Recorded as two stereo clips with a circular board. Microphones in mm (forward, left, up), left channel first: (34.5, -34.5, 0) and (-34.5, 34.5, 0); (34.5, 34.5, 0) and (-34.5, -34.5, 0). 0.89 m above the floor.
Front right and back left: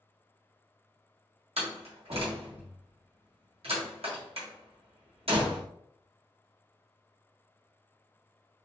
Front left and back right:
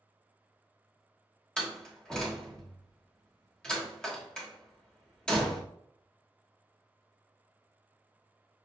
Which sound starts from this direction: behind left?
A door slam, at 1.6 s.